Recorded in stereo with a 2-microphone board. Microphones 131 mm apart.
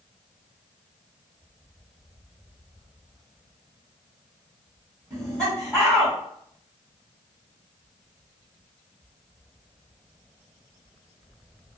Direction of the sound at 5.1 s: 25° right (ahead or behind).